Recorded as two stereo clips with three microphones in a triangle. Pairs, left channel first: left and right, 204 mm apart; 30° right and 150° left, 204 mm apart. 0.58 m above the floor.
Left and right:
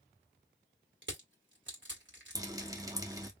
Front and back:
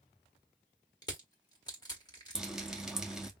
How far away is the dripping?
About 1.0 m.